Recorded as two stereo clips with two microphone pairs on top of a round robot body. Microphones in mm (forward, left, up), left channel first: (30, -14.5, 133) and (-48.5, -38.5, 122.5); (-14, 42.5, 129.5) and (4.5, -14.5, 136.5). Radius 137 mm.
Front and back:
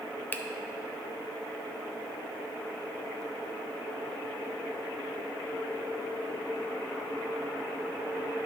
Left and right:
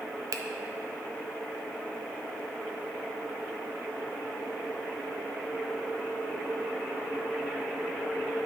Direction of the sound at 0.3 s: 55° right.